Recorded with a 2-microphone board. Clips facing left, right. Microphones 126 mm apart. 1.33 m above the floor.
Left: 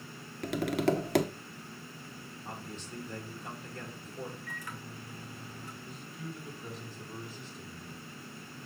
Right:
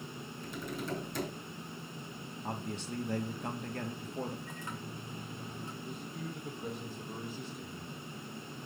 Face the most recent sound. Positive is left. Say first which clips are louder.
# right 1 dB
turn(degrees=-60)  # may be behind; listen again after turning